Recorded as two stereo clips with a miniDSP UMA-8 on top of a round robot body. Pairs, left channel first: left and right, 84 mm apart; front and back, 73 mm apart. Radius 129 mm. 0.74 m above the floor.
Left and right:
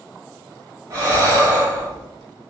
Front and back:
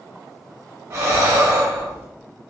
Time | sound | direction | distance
0.9 | breathing | 140° right | 1.7 m